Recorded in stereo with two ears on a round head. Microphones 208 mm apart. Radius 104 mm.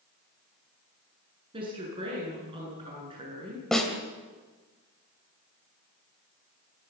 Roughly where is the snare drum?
Centre.